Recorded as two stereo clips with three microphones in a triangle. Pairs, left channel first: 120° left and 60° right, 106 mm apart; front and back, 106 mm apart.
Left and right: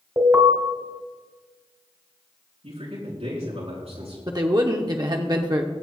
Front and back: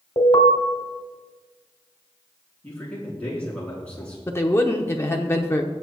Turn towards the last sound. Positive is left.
turn(degrees=-50)